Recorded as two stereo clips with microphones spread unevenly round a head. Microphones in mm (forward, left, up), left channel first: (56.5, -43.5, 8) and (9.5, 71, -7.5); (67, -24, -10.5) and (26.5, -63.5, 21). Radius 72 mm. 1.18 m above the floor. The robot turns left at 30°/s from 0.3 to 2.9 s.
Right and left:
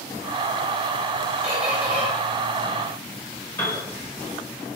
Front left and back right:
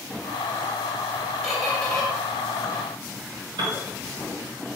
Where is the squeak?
150° right, 0.7 m; by 2.1 s 170° right, 0.7 m.